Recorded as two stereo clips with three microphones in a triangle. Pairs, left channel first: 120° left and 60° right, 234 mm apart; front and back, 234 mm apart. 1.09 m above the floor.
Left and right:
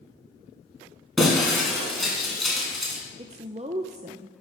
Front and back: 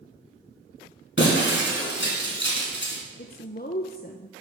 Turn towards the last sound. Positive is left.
turn(degrees=-10)